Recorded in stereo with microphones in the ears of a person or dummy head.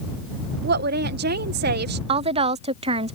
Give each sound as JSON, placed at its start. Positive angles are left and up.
{"t": 0.6, "sound": "a woman speaking", "side_deg": -55}
{"t": 2.1, "sound": "a woman speaking", "side_deg": -35}